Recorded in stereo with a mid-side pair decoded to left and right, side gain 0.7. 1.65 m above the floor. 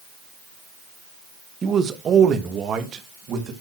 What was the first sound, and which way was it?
A man speaking, 30° right.